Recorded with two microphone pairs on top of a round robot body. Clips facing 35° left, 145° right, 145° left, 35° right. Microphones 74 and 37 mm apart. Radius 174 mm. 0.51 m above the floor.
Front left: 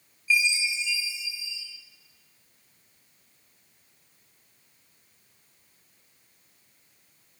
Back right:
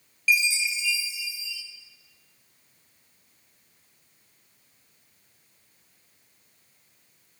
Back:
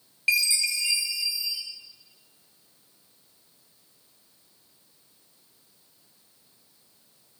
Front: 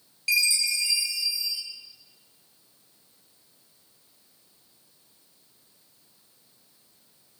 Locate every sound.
0.3 s a chime: 155° right, 2.5 m